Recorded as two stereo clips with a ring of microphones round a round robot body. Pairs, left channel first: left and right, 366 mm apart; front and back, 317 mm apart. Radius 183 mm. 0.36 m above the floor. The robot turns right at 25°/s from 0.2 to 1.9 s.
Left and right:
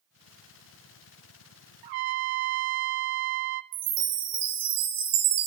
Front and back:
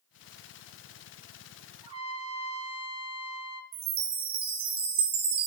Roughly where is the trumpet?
Right.